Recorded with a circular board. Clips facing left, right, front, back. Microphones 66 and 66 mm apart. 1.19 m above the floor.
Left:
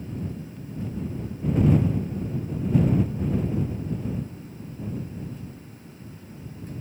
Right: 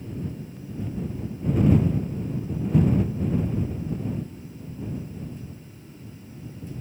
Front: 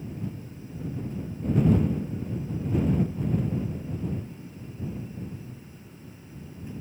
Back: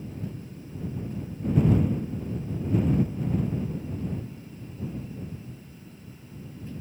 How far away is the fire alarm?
I don't hear a fire alarm.